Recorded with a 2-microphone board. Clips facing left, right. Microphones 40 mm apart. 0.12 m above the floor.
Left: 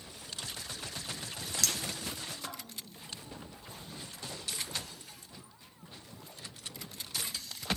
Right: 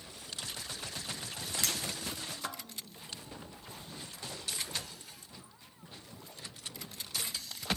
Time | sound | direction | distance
1.6 | a clink | 25° right (ahead or behind) | 1.1 m